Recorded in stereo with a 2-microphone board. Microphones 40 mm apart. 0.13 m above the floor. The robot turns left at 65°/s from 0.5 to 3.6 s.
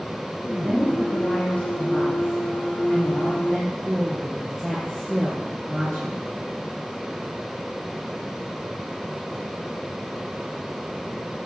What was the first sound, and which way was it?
A woman speaking, 155° right.